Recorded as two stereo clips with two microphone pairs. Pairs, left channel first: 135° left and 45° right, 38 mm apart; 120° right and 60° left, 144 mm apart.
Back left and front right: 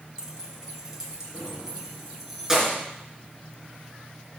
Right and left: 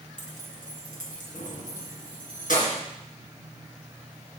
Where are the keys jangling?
110° right, 1.6 m; by 2.8 s 125° right, 3 m.